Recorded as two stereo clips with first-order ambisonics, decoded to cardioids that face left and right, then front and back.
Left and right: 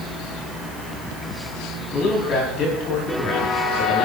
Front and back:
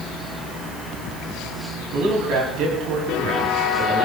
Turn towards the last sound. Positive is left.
turn(degrees=125)